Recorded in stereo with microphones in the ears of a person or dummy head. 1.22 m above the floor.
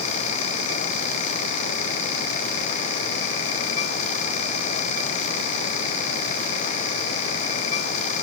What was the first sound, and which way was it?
Only background noise.